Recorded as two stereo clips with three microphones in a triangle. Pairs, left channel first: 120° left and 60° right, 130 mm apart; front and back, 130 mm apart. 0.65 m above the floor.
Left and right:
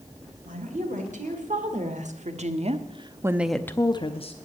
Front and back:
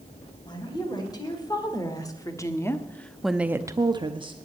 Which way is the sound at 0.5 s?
55° right.